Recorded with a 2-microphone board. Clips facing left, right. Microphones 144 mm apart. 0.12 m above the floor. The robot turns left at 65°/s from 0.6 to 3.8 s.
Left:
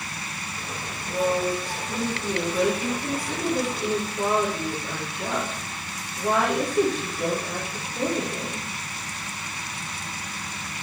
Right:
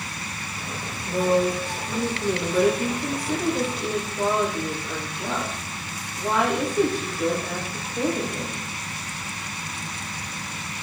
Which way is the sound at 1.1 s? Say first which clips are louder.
Right 3 dB; 15° right.